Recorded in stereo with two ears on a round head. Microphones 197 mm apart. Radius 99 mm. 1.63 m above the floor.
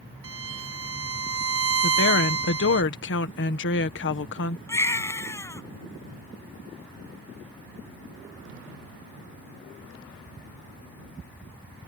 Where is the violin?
70° right (ahead or behind).